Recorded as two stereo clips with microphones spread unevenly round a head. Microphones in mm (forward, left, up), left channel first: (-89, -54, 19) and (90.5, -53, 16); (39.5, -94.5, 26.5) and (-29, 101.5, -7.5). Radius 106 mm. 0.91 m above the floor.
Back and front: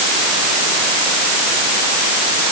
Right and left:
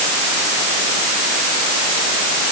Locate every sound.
Only background noise.